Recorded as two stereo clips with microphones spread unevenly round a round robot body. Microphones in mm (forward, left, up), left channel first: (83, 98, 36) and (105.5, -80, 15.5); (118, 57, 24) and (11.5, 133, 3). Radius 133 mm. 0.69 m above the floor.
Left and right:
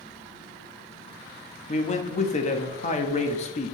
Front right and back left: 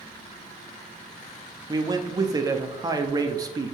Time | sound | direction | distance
1.7 | a man speaking | 135° left | 1.0 m